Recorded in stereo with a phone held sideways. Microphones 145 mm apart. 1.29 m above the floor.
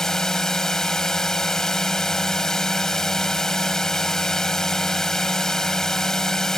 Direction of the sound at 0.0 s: 5° left (ahead or behind).